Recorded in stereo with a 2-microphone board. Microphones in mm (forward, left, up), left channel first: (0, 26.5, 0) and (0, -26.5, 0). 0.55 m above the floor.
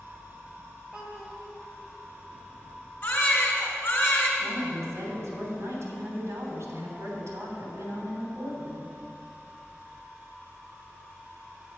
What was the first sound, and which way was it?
A child speaking, 20° right (ahead or behind).